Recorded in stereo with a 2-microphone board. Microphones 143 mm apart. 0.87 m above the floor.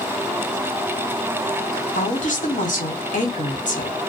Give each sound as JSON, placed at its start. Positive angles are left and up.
{"t": 1.9, "sound": "a woman speaking", "side_deg": 65, "distance_m": 1.1}